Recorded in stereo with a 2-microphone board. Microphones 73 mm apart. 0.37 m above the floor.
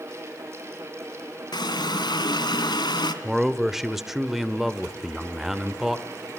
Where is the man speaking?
5° right (ahead or behind), 1.0 m.